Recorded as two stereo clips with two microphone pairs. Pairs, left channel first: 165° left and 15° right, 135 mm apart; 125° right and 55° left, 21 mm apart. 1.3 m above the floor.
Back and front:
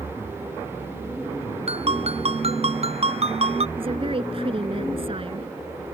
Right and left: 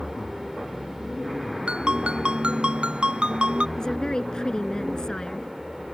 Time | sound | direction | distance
1.7 | a ringtone | 25° left | ?
3.8 | a woman speaking | 65° right | ?